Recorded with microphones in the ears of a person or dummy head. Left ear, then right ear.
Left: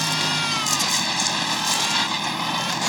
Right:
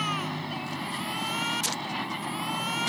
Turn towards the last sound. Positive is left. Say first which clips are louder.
# left 9 dB
turn(degrees=85)